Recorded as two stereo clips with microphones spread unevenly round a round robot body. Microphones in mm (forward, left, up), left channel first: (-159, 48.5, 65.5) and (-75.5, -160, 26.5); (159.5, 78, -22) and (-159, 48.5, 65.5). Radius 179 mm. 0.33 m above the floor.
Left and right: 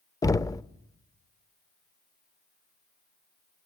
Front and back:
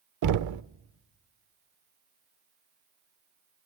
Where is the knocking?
165° right, 0.6 m.